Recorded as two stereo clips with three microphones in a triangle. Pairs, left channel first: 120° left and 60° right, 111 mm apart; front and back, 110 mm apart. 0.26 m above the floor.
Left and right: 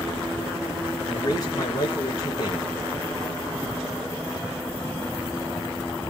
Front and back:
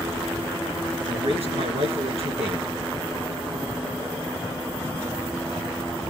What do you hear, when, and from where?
1.1 s a man speaking: 170° left, 3 m